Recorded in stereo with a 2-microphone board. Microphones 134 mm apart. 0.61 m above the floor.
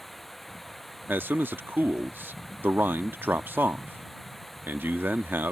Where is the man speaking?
15° right (ahead or behind).